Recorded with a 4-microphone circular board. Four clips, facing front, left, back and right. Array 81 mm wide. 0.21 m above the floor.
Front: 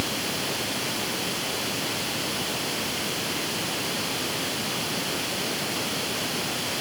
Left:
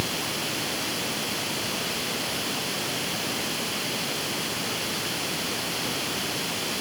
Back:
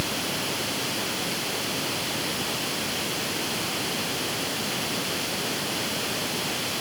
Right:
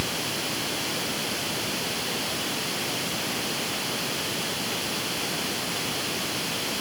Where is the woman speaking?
No woman speaking in this recording.